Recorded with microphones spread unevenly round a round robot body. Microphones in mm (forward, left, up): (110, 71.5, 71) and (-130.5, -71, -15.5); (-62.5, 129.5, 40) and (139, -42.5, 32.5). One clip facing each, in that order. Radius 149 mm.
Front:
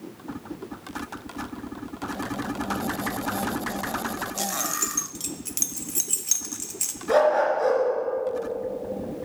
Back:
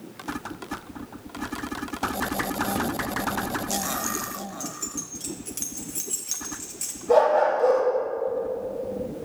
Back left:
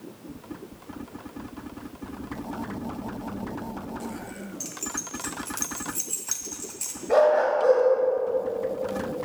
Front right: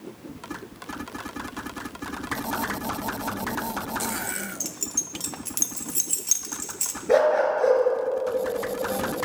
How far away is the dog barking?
About 3 m.